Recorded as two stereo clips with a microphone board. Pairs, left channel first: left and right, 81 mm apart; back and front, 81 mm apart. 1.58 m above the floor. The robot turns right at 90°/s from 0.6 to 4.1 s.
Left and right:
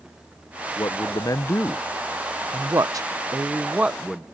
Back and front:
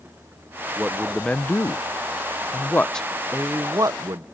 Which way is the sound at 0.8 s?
60° left.